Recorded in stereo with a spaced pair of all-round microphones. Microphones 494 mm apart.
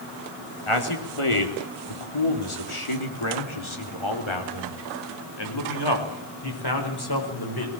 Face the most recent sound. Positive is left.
turn(degrees=45)  # may be behind; listen again after turning